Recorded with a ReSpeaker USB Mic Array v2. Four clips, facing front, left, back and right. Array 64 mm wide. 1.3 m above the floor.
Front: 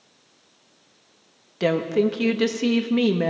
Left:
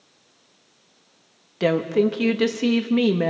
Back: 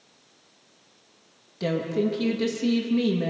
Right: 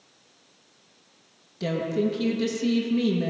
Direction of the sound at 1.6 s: 55° left.